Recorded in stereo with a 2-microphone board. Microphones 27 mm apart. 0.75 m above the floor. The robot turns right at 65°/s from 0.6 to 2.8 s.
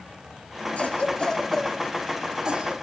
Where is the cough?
60° left (ahead or behind), 1.7 m; by 2.7 s 45° right (ahead or behind), 1.7 m.